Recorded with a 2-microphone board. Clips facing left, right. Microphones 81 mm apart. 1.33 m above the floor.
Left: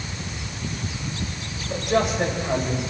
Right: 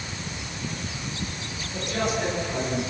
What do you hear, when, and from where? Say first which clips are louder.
1.7 s a man speaking: left 5 dB; 85° left, 8 m; by 2.8 s 80° left, 9 m